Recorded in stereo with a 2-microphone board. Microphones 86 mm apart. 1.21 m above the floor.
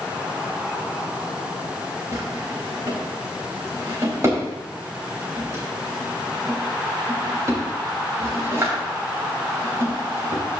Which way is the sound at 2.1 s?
35° right (ahead or behind).